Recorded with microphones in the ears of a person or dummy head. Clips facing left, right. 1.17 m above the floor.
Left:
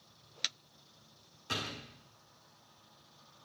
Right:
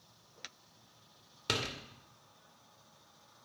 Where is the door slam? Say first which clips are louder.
Right 3 dB; 75° right (ahead or behind), 2.5 m.